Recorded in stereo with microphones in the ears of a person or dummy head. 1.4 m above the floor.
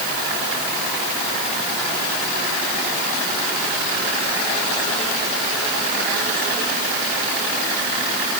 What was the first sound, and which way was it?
Only background noise.